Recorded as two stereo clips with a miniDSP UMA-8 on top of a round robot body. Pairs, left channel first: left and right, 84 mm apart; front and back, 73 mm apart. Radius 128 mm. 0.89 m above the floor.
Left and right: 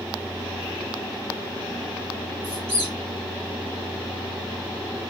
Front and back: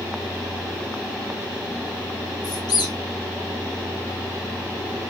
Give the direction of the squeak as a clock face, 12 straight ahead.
1 o'clock.